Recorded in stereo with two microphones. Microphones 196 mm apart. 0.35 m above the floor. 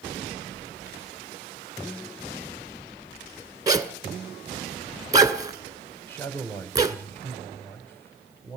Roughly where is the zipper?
Centre.